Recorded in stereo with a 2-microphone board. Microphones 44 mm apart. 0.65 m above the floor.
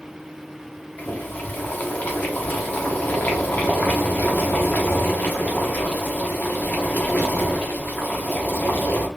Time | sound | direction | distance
1.0 | boiling | 35° left (ahead or behind) | 1.0 m